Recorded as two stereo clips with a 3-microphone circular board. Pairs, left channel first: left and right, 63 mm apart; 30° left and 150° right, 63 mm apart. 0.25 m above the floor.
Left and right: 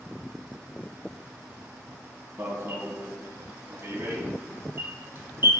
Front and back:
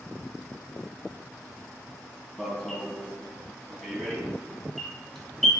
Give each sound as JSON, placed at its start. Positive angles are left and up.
{"t": 2.4, "sound": "an alarm", "azimuth_deg": -55, "distance_m": 2.5}